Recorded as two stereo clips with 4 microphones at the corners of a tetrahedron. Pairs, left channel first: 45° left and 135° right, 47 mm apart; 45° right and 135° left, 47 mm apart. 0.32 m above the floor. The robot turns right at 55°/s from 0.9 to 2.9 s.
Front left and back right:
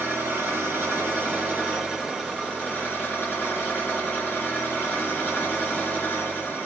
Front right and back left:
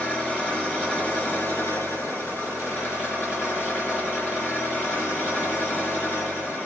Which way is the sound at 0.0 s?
115° right.